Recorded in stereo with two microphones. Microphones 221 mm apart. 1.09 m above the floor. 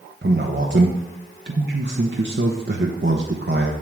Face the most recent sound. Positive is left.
turn(degrees=-55)  # may be behind; listen again after turning